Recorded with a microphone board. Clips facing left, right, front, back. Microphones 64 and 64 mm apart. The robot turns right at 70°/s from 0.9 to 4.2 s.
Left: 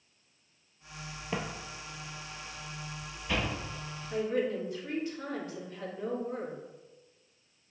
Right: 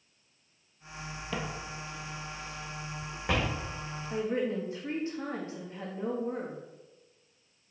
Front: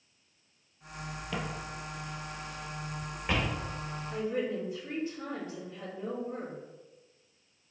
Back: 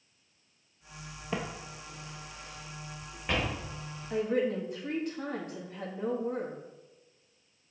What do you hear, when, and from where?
1.3 s footsteps: 135° left, 1.2 m; by 3.6 s 70° right, 4 m
4.1 s a woman speaking: 155° right, 2 m; by 6.6 s 150° right, 2 m